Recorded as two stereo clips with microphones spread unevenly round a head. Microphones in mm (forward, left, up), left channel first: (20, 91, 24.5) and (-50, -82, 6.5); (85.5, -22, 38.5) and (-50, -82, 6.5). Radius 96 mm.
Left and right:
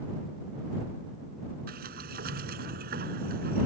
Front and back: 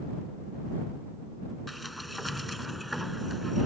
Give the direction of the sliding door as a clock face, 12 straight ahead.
2 o'clock.